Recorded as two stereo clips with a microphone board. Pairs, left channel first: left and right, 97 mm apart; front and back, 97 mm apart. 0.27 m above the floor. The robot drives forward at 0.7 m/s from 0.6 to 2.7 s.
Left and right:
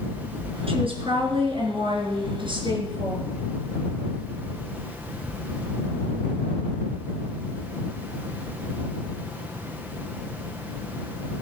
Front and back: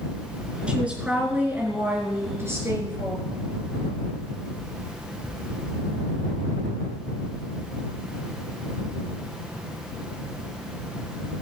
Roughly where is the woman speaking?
Right.